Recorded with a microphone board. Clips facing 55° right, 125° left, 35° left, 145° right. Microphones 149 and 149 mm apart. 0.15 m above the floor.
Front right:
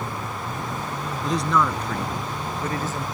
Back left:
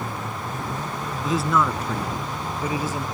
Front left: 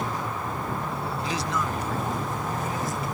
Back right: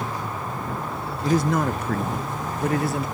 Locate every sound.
1.2 s a man speaking: 150° right; by 3.0 s 155° right